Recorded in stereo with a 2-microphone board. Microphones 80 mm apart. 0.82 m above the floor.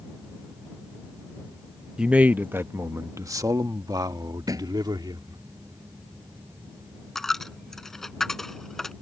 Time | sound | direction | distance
2.0 | a man speaking | 10° right (ahead or behind) | ?
4.5 | a thud | 50° right (ahead or behind) | ?
7.2 | a dropped coin | 5° left (ahead or behind) | ?